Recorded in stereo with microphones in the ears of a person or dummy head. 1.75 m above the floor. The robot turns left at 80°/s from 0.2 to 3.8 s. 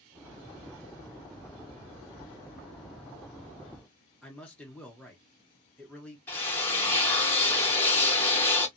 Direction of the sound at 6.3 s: 10° left (ahead or behind).